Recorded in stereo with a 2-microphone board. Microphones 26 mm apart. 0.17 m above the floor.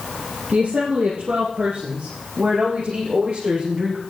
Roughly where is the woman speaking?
Right.